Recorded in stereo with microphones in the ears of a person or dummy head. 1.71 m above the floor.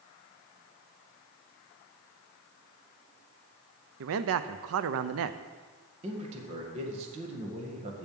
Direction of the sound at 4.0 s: 80° right.